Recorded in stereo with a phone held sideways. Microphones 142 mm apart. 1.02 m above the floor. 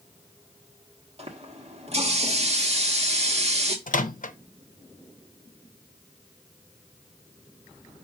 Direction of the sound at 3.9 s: 70° left (ahead or behind).